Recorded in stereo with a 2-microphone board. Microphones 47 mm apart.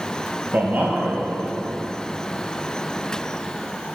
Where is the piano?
I don't hear a piano.